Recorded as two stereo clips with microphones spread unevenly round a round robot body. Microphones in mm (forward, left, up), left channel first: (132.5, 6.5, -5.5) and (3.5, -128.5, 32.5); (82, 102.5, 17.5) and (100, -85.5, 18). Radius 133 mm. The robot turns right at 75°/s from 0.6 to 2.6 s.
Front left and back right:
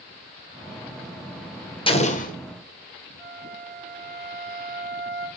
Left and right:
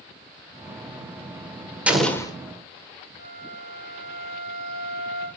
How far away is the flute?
About 1.7 m.